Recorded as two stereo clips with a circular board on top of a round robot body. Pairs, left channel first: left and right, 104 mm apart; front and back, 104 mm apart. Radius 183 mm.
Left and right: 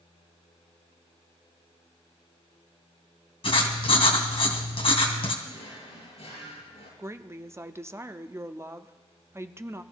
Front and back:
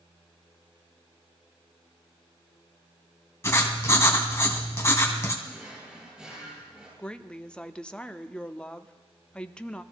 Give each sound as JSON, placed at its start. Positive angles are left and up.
{"t": 3.4, "sound": "writing", "azimuth_deg": 65, "distance_m": 2.5}
{"t": 5.4, "sound": "a drawer", "azimuth_deg": 100, "distance_m": 9.0}
{"t": 7.0, "sound": "a woman speaking", "azimuth_deg": -70, "distance_m": 1.0}